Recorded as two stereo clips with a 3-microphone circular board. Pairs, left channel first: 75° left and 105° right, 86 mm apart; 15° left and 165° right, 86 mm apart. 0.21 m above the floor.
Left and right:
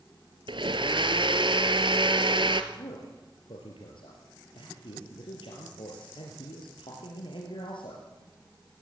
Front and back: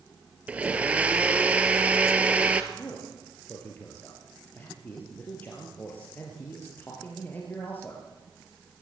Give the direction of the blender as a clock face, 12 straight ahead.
3 o'clock.